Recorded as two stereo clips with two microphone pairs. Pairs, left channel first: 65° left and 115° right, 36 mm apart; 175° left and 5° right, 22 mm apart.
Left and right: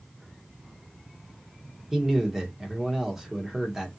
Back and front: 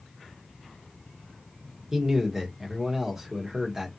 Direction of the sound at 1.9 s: 50° right.